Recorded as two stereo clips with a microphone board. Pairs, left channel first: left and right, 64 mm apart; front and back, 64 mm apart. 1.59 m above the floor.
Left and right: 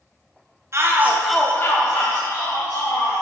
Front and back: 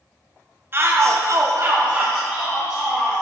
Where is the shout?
130° right, 1.2 m; by 3.2 s 90° left, 3 m.